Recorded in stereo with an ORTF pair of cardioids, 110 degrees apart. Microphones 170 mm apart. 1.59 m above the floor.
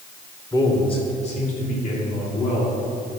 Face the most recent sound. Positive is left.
turn(degrees=55)